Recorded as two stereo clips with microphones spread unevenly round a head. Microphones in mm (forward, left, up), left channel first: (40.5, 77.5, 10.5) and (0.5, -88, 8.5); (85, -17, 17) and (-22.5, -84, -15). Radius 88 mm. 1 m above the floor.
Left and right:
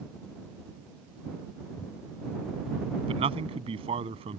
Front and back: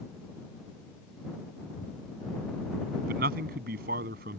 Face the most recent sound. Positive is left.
turn(degrees=-165)